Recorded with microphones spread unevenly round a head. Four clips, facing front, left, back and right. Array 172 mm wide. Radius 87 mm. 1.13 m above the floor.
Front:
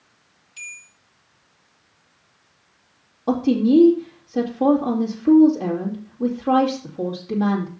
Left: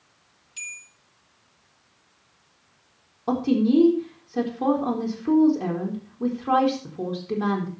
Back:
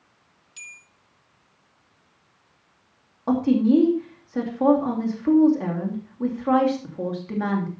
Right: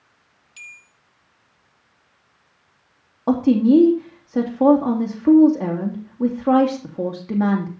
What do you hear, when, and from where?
0.6 s a bell: 170° right, 0.9 m
3.3 s a woman speaking: 90° right, 2.5 m